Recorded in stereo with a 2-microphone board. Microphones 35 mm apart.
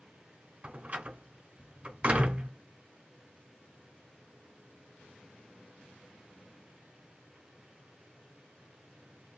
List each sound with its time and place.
0.6 s a door slam: 35° right (ahead or behind), 1.1 m